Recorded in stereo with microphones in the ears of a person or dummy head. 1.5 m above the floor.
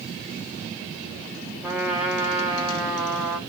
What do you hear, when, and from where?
1.6 s a trumpet: 5° right (ahead or behind), 1.1 m